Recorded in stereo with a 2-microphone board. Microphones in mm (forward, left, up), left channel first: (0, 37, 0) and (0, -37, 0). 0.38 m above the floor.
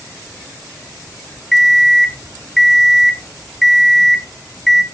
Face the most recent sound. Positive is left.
turn(degrees=0)  # may be behind; listen again after turning